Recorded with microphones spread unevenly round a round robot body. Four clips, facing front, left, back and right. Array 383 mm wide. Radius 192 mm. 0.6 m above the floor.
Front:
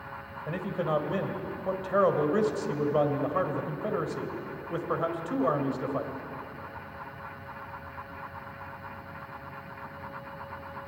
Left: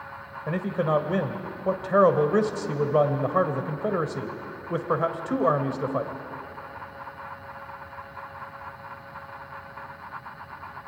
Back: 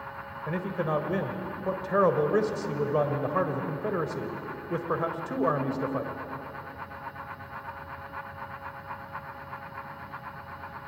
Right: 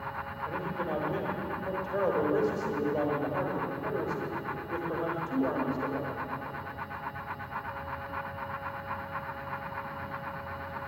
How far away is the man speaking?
About 2.5 m.